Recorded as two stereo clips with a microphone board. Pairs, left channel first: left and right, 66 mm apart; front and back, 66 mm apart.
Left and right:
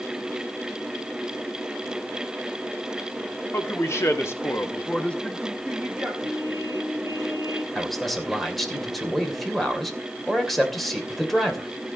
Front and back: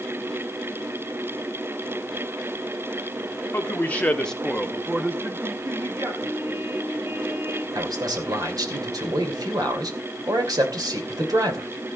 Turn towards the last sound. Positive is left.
turn(degrees=175)